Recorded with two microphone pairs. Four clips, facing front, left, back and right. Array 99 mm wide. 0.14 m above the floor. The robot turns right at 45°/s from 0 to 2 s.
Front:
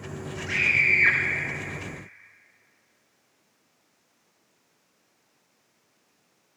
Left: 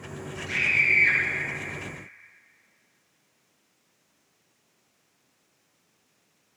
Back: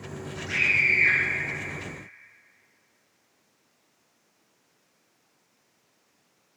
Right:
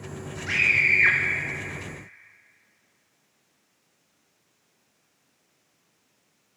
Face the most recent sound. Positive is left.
turn(degrees=-15)